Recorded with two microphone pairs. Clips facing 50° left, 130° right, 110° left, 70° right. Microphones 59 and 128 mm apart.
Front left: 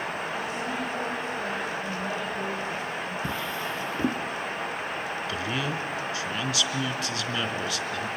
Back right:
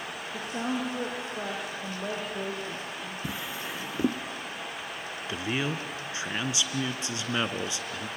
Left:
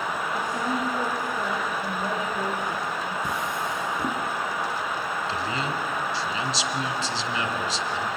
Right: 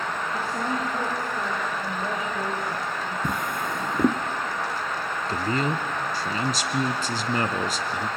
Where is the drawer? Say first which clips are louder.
Front left 5 dB, even; 55° right, 0.9 m.